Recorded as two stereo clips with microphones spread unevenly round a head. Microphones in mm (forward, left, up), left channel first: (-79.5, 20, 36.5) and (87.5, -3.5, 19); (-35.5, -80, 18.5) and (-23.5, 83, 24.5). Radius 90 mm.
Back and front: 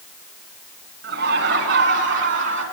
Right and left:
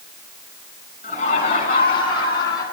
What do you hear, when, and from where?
1.0 s laughter: 40° right, 9.5 m; by 2.6 s 20° right, 9.5 m